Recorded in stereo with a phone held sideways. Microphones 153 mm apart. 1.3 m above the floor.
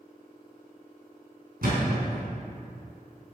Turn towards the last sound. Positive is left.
turn(degrees=-70)  # may be behind; listen again after turning